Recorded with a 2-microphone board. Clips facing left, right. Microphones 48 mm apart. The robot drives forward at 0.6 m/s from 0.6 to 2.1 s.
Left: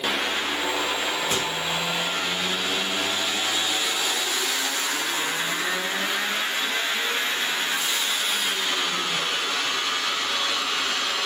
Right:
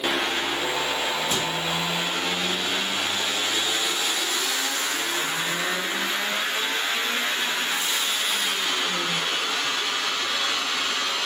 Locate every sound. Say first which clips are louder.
1.3 s a microwave: even; 55° left (ahead or behind), 2.5 m; by 1.5 s 50° left (ahead or behind), 3 m